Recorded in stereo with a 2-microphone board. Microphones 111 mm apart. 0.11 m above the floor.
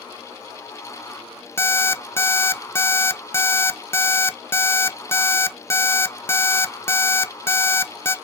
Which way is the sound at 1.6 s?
20° left (ahead or behind).